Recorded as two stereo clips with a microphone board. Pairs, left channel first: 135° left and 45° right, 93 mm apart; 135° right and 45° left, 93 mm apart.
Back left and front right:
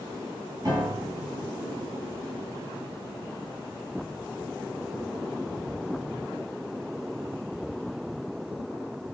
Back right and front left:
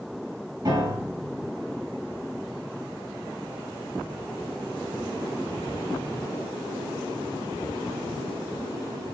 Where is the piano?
Straight ahead, 5.5 m.